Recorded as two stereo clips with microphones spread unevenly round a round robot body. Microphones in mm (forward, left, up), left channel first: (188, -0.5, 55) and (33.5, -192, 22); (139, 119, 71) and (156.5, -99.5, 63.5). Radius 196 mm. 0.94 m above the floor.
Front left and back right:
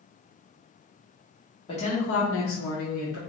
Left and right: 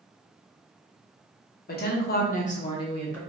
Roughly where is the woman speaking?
Behind left.